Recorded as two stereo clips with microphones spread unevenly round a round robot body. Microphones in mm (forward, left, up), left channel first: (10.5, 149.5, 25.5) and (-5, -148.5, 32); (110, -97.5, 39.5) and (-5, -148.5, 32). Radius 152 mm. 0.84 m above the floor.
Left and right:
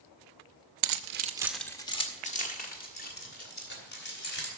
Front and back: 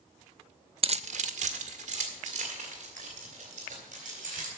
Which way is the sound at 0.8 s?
110° right.